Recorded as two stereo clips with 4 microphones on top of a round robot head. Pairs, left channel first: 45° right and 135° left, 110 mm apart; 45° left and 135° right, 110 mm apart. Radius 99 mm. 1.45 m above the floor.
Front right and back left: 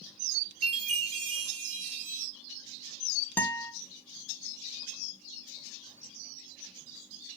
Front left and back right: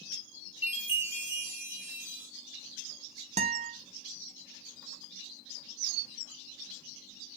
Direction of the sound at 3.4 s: 120° right.